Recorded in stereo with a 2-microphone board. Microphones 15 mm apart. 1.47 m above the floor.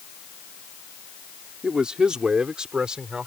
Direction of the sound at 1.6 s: 60° right (ahead or behind).